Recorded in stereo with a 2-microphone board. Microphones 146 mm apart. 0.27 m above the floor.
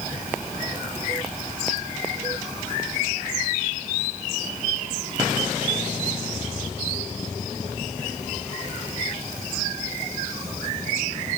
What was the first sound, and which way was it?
Only background noise.